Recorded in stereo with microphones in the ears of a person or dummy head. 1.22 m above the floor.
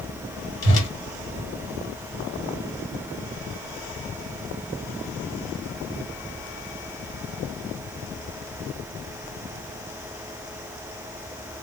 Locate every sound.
0.6 s a whoosh: 60° left (ahead or behind), 1.6 m